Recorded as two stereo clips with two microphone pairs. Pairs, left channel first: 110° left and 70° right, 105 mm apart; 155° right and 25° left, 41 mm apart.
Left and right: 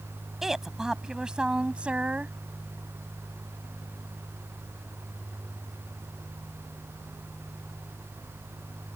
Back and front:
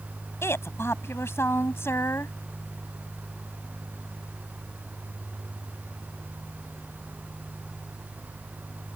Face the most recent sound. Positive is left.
turn(degrees=-145)